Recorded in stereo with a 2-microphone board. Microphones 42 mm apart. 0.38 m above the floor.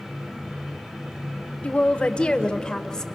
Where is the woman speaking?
30° left (ahead or behind), 1.4 m; by 3.0 s 15° left (ahead or behind), 1.7 m.